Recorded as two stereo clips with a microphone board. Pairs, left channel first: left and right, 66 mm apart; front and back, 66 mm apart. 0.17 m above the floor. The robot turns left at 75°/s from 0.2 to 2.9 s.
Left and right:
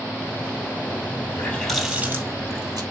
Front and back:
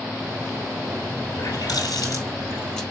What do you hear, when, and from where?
1.3 s a running tap: 35° left, 3 m; by 2.8 s 80° right, 3 m